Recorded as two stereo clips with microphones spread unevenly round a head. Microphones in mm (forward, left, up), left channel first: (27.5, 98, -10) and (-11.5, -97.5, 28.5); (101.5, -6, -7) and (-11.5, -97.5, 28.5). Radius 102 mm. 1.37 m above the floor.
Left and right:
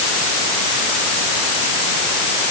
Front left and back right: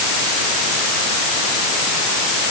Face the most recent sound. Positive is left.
No sound to turn to.